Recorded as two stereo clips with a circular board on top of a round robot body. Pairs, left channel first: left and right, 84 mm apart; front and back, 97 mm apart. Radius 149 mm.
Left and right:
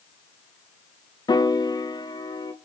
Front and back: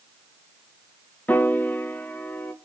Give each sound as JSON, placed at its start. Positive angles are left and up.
{"t": 1.3, "sound": "a piano", "azimuth_deg": 70, "distance_m": 1.6}